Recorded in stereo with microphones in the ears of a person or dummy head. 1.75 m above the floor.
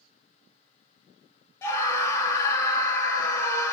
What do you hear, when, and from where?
1.6 s a scream: 15° left (ahead or behind), 0.7 m